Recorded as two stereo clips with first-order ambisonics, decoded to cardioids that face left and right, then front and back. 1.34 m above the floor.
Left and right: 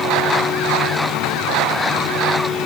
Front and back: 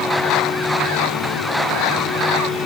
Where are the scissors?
No scissors in this recording.